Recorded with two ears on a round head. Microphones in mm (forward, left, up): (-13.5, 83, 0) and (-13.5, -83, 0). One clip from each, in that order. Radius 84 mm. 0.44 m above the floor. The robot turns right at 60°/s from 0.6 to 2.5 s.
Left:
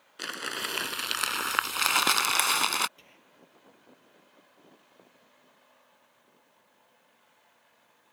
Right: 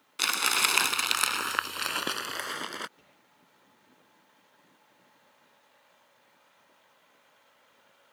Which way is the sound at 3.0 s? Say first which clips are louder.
Left 4 dB; 60° left (ahead or behind).